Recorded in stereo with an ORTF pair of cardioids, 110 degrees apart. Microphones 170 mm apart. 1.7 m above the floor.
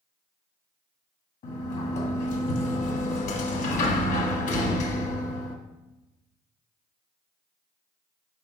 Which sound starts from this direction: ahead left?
A sliding door, at 1.4 s.